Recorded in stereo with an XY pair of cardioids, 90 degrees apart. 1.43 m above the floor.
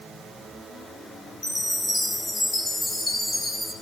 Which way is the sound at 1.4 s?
40° left.